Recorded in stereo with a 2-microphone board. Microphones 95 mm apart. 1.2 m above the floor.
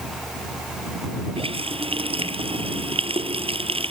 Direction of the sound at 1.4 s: 80° right.